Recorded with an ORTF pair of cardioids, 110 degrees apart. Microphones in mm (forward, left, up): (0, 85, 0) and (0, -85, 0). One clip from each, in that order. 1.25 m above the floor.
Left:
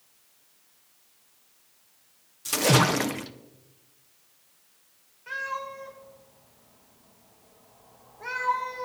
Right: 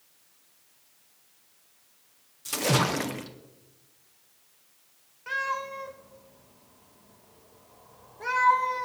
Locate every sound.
2.5 s a splash: 20° left, 0.7 m
5.3 s a cat meowing: 40° right, 3 m